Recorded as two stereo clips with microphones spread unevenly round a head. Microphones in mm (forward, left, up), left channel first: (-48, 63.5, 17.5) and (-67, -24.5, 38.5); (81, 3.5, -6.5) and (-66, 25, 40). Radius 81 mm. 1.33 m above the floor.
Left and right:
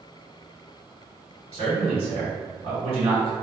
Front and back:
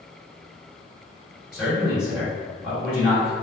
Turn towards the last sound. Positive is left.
turn(degrees=-100)